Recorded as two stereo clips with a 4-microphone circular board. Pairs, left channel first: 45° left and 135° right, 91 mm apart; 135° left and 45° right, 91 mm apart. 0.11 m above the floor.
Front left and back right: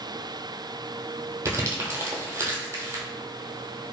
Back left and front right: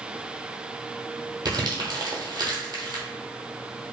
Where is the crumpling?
80° right, 0.7 m.